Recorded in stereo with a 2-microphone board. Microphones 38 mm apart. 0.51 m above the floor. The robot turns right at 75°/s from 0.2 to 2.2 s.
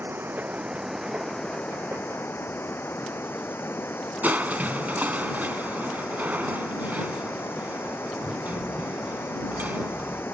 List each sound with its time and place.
0.0 s running water: 65° right; by 10.3 s 85° left
4.2 s crushing: 50° right (ahead or behind)